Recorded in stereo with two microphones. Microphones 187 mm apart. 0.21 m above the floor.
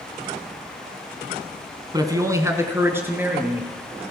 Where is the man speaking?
20° right (ahead or behind), 1.5 m; by 4.0 s 10° right (ahead or behind), 4 m.